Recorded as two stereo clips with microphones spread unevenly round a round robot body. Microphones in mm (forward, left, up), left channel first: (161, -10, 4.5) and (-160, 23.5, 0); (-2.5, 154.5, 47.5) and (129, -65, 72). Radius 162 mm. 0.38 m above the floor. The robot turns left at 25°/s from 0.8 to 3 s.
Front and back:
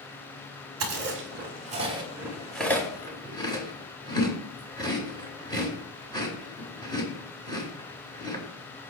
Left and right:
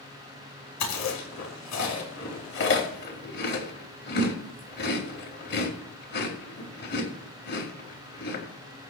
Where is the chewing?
125° left, 4.5 m; by 8.4 s 70° left, 4.5 m.